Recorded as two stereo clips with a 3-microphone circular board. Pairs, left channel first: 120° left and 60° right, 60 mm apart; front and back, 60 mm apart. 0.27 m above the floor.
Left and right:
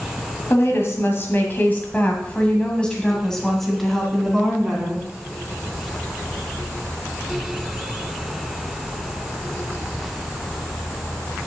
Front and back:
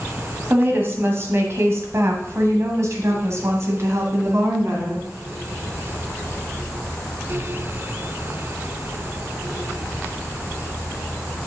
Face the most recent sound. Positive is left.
turn(degrees=-140)